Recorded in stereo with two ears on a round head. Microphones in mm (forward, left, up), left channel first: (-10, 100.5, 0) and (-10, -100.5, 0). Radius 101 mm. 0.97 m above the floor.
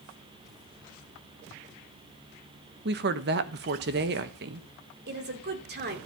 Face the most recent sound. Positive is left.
turn(degrees=-50)  # may be behind; listen again after turning